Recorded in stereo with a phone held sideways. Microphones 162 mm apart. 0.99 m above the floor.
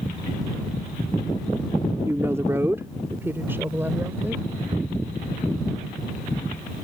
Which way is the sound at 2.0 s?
15° right (ahead or behind).